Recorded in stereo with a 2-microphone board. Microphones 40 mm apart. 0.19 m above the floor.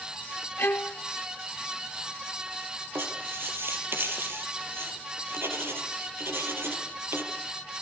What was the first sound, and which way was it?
A violin, 60° left (ahead or behind).